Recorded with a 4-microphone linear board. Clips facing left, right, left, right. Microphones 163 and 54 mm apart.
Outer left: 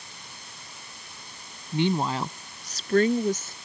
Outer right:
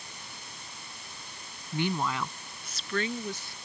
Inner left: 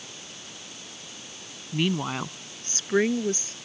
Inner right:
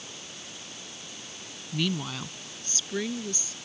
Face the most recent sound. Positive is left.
turn(degrees=45)  # may be behind; listen again after turning